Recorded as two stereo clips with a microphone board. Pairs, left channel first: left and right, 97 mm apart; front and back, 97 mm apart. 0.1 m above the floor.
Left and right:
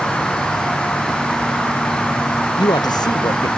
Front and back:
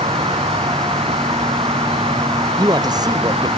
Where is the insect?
175° left.